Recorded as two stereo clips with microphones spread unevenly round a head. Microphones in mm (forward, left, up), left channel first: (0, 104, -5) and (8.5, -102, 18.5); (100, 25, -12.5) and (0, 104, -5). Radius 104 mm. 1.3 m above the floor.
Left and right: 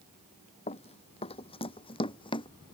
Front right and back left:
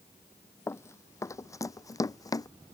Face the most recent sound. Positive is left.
turn(degrees=25)